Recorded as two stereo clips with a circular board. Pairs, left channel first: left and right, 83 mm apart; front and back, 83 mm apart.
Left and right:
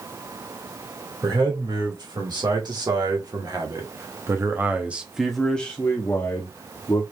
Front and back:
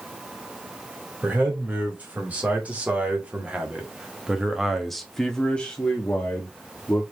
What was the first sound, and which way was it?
A man speaking, 110° right.